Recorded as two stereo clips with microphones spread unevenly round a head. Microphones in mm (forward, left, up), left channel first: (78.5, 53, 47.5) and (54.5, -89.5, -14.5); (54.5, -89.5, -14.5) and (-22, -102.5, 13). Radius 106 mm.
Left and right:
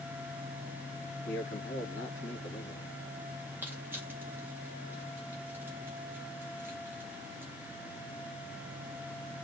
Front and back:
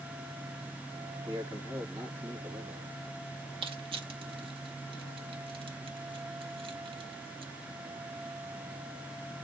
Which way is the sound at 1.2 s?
115° left.